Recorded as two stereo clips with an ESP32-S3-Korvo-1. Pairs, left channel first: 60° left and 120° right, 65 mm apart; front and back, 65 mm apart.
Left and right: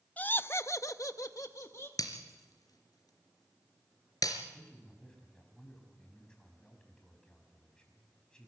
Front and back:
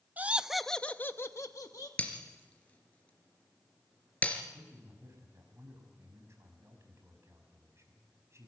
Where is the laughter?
120° left, 0.8 m; by 1.9 s 20° left, 1.3 m.